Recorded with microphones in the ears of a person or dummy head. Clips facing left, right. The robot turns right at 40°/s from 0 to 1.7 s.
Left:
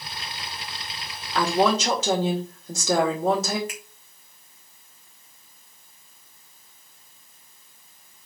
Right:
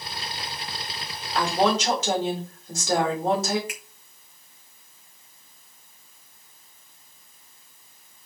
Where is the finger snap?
40° left (ahead or behind), 2 m.